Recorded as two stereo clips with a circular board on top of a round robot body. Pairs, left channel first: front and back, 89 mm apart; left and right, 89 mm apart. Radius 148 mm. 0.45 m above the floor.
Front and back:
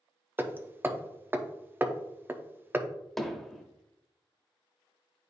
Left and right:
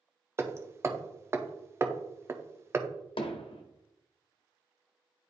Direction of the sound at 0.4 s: 130° right.